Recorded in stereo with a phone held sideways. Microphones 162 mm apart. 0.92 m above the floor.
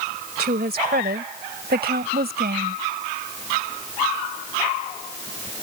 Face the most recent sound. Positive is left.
turn(degrees=-85)